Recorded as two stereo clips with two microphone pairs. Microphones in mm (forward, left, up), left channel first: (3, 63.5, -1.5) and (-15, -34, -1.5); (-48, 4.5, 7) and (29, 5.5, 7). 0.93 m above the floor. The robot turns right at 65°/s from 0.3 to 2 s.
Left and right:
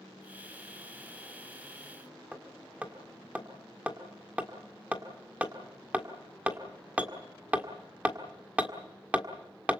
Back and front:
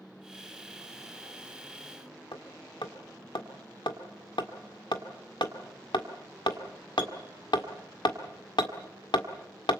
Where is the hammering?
175° right, 1.7 m.